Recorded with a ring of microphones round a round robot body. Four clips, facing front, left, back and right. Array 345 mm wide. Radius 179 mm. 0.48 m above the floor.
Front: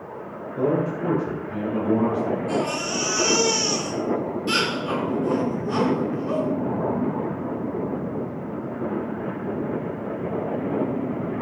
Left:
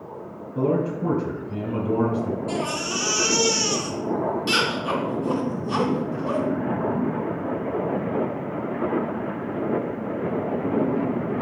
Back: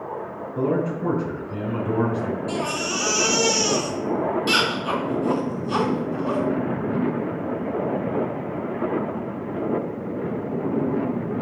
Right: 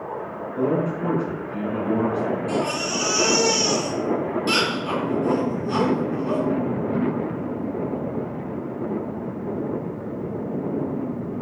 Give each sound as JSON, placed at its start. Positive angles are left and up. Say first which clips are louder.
{"t": 0.6, "sound": "a man speaking", "louder": "even, front 1 dB", "azimuth_deg": 120, "distance_m": 4.5}
{"t": 2.5, "sound": "a baby crying", "louder": "right 3 dB, front 1 dB", "azimuth_deg": 160, "distance_m": 3.5}